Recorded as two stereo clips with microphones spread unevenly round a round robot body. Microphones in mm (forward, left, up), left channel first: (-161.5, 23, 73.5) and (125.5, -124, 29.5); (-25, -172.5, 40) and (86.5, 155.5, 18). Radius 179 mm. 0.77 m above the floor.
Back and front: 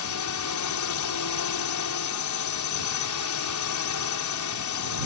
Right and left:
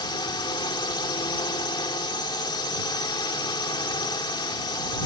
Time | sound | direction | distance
0.0 | a drone | 175° left | ?